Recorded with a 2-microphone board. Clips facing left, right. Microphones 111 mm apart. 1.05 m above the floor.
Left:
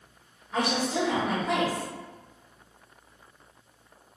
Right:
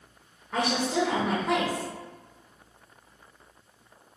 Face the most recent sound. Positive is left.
turn(degrees=-50)  # may be behind; listen again after turning